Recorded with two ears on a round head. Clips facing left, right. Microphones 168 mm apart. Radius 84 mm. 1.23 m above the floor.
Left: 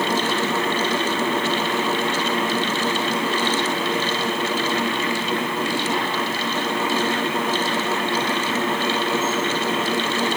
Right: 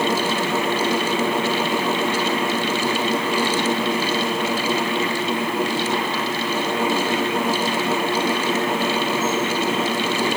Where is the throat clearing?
No throat clearing in this recording.